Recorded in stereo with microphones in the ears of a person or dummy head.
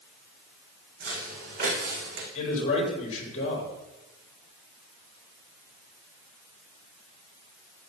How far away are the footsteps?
About 5 m.